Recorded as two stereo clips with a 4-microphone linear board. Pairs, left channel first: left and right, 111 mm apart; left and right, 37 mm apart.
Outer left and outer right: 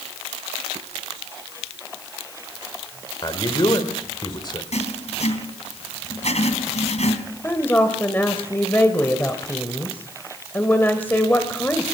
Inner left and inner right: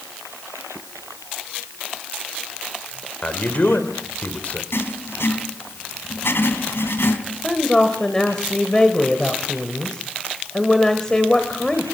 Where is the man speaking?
40° left (ahead or behind), 2 m.